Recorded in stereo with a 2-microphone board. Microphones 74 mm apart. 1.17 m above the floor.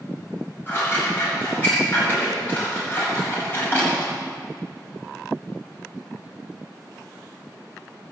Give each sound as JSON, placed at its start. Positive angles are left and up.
{"t": 0.7, "sound": "scissors", "side_deg": 25, "distance_m": 6.5}